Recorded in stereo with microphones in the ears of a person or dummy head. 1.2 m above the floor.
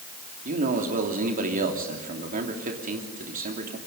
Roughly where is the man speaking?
Right.